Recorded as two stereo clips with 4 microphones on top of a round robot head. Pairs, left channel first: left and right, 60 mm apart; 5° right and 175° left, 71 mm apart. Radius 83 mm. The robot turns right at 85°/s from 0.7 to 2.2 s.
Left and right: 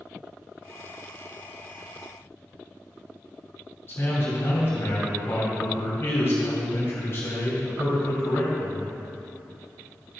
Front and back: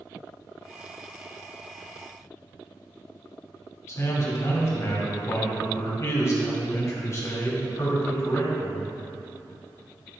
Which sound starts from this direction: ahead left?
A man speaking, at 3.9 s.